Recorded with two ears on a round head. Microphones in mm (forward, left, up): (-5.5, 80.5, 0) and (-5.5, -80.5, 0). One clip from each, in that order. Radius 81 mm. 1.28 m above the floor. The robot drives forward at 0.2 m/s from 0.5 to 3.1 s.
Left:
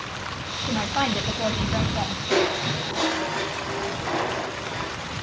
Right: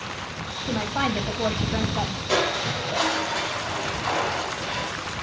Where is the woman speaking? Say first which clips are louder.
Left 1 dB; centre (ahead or behind), 0.9 m.